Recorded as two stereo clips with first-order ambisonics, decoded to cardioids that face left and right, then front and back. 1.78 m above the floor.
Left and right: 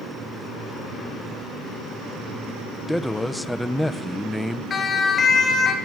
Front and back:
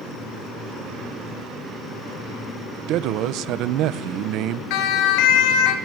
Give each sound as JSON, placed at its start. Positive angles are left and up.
{"t": 2.9, "sound": "a man speaking", "azimuth_deg": 175, "distance_m": 0.9}
{"t": 4.7, "sound": "a siren", "azimuth_deg": 20, "distance_m": 2.5}